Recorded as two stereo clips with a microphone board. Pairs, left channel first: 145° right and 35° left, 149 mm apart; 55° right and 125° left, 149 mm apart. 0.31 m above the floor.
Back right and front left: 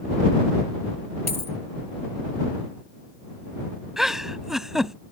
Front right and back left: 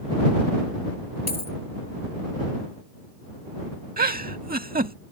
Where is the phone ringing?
No phone ringing in this recording.